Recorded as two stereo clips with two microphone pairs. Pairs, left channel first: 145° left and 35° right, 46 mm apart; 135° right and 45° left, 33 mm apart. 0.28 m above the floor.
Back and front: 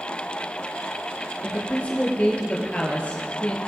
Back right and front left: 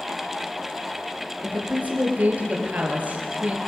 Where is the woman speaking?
85° left, 5.5 m.